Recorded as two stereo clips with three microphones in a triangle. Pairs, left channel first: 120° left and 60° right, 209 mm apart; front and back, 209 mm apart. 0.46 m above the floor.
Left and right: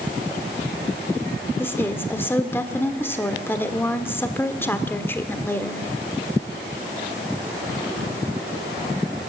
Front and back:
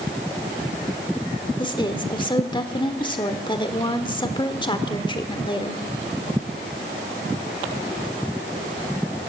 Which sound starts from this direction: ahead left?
A woman speaking, at 1.6 s.